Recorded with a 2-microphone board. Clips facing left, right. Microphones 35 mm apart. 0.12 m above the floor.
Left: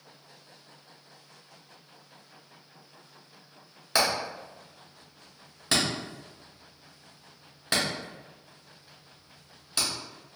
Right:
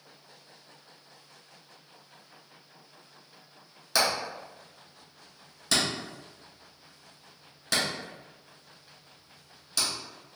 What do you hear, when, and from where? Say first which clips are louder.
4.0 s hammering: left 1 dB; 20° left (ahead or behind), 1.3 m